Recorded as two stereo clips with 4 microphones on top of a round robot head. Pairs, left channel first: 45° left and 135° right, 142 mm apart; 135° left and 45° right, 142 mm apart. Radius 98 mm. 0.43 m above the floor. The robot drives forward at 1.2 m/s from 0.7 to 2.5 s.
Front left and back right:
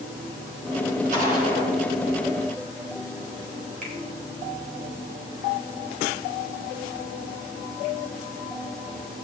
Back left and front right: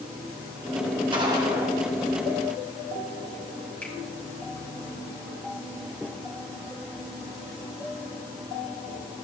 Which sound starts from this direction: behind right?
A finger snap, at 3.8 s.